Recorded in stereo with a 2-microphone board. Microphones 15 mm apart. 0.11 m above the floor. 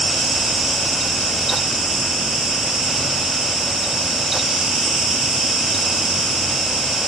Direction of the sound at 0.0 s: 40° right (ahead or behind).